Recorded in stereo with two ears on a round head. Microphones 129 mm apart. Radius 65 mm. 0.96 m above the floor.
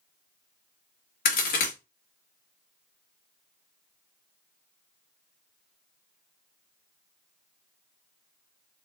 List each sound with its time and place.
1.2 s a crack: 70° left (ahead or behind), 1.7 m